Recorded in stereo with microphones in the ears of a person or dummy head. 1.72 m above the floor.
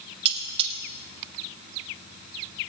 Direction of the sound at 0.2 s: 35° right (ahead or behind).